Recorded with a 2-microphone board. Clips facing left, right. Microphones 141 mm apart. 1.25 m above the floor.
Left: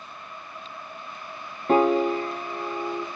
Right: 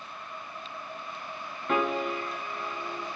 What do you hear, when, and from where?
1.7 s a piano: 35° left (ahead or behind), 0.6 m